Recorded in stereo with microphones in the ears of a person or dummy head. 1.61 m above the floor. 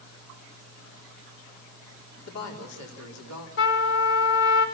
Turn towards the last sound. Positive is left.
turn(degrees=55)  # may be behind; listen again after turning